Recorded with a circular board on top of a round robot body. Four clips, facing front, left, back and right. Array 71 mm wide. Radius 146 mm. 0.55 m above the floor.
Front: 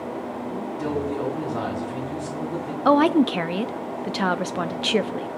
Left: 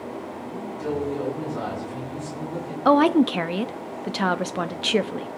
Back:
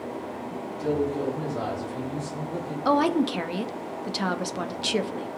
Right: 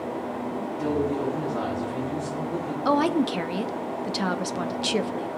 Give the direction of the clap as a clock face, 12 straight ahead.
No clap in this recording.